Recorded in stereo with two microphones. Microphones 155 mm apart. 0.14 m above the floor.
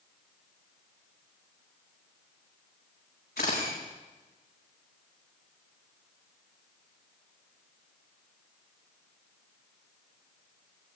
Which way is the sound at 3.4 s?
80° left.